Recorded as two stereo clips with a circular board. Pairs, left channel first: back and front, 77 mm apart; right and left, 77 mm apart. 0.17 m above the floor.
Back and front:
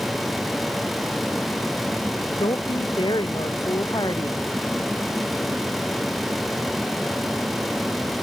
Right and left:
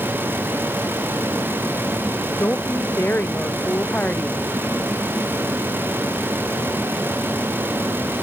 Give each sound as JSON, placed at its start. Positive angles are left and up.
{"t": 2.4, "sound": "a woman speaking", "azimuth_deg": -155}